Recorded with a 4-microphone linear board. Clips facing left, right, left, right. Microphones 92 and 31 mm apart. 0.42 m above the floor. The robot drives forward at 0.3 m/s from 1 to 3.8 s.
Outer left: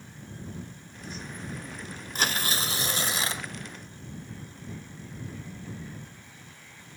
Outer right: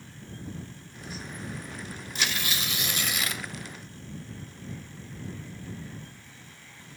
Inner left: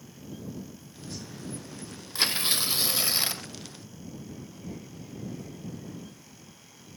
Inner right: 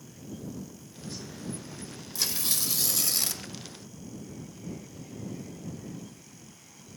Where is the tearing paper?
40° left (ahead or behind), 0.7 m; by 3.5 s 30° left (ahead or behind), 1.0 m.